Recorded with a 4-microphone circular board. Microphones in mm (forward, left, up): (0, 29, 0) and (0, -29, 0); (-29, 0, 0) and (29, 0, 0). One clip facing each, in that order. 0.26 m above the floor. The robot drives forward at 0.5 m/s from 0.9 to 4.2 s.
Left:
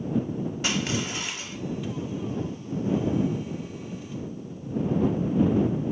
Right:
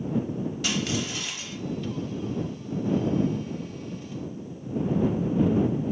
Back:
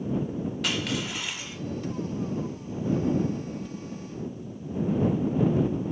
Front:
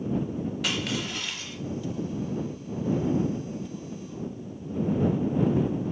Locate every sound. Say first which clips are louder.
0.6 s crushing: left 1 dB, back 1 dB; 85° left, 0.8 m; by 1.6 s 130° left, 0.9 m